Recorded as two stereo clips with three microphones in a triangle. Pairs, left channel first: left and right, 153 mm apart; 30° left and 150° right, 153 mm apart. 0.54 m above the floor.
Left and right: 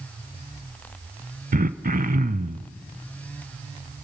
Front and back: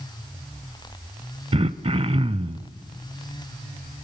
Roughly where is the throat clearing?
Right.